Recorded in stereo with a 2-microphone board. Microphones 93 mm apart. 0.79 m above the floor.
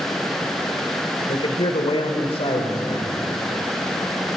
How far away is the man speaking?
About 2.5 m.